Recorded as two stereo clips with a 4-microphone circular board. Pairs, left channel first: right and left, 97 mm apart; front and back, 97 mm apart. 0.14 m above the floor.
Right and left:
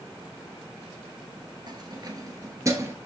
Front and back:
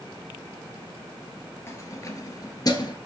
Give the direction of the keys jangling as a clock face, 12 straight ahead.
10 o'clock.